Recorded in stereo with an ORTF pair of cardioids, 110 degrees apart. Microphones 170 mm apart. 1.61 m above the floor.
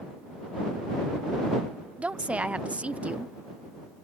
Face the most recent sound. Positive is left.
turn(degrees=-10)